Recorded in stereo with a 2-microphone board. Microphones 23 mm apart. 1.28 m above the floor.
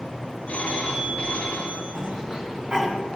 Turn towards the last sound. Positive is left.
turn(degrees=-45)  # may be behind; listen again after turning